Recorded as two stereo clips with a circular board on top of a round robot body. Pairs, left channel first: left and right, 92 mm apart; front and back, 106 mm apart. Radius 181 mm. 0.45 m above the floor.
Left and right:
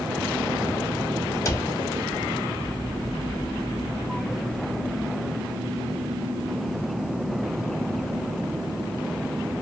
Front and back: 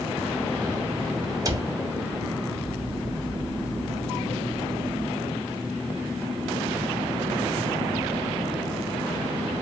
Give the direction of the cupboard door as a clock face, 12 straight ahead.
7 o'clock.